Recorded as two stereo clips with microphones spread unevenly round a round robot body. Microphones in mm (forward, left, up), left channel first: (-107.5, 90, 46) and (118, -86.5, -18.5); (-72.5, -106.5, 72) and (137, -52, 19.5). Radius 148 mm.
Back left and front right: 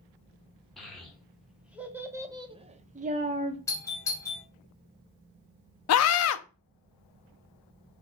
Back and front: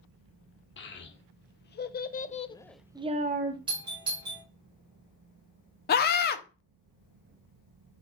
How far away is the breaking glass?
No breaking glass in this recording.